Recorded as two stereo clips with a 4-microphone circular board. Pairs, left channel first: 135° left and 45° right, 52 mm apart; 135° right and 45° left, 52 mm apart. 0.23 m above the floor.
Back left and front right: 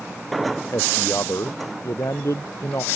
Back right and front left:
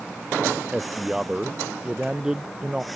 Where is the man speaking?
120° left.